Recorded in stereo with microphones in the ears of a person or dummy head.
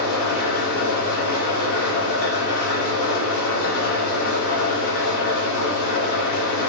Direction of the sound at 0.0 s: 65° left (ahead or behind).